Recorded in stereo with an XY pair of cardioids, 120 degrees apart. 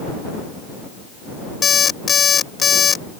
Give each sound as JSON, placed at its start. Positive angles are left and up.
{"t": 1.6, "sound": "an alarm clock", "azimuth_deg": 35}